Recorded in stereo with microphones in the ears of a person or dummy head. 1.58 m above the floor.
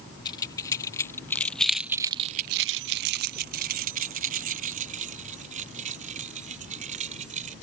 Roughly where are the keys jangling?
Left.